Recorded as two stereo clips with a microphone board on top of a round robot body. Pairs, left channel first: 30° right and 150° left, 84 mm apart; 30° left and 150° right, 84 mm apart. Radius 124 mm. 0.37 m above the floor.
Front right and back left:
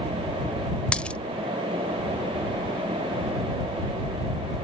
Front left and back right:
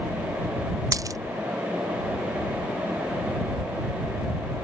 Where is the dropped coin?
105° right.